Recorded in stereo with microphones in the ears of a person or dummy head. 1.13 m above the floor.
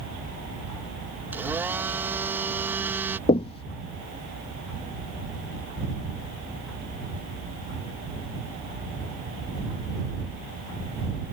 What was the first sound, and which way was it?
A blender, 15° right (ahead or behind).